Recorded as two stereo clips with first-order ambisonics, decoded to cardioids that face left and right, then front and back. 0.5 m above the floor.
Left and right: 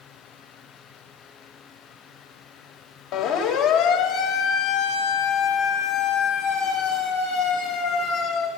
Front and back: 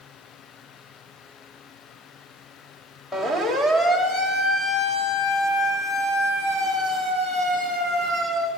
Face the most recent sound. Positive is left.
turn(degrees=60)